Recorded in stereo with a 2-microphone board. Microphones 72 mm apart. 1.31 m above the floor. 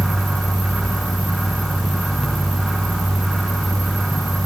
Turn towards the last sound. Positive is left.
No sound to turn to.